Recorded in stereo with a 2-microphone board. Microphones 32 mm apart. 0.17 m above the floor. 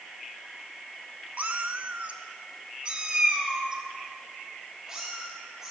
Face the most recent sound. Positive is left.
turn(degrees=-15)  # may be behind; listen again after turning